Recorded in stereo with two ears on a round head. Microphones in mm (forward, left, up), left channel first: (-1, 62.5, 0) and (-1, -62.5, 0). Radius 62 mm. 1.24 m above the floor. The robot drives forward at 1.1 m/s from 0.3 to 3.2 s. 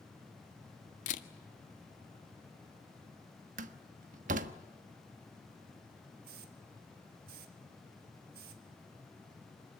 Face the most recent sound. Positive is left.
turn(degrees=-80)